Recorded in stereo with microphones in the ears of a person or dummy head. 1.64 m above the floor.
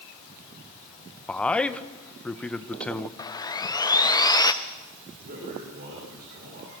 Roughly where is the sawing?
Left.